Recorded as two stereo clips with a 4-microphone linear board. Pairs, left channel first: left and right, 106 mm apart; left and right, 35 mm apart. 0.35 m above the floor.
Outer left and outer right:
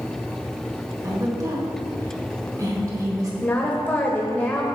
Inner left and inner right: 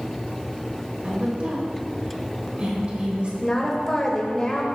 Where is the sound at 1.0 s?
35° right (ahead or behind), 1.5 m.